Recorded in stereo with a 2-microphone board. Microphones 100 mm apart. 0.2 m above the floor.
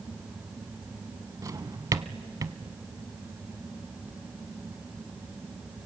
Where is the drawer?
35° right (ahead or behind), 0.6 m.